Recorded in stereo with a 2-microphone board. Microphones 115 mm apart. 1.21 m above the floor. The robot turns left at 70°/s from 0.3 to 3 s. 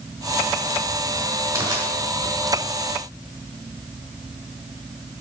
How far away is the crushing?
About 1.9 m.